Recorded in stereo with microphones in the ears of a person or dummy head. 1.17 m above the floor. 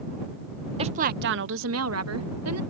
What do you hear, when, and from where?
0.8 s a woman speaking: 25° right (ahead or behind); by 2.6 s 80° right